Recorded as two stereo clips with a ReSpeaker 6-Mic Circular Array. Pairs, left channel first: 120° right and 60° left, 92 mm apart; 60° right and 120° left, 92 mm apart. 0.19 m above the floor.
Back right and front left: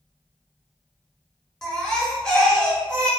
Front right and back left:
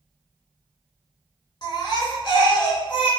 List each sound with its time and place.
1.6 s a baby crying: 35° right, 1.0 m